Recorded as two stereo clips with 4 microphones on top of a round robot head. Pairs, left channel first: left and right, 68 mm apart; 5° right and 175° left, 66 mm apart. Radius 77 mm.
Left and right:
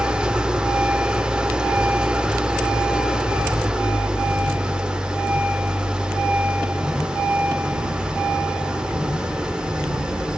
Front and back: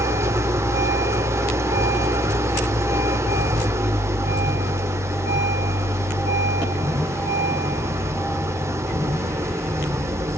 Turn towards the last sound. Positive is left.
turn(degrees=-165)